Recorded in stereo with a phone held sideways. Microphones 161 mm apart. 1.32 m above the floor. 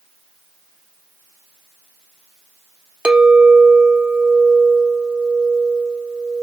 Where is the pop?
I don't hear a pop.